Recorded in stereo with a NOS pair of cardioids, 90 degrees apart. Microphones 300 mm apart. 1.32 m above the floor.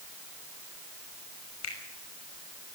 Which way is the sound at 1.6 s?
60° left.